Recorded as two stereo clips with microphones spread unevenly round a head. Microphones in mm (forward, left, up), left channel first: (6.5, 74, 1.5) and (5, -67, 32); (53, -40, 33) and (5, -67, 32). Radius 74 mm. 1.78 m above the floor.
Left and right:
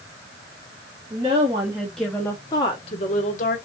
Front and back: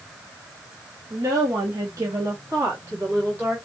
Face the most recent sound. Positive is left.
turn(degrees=125)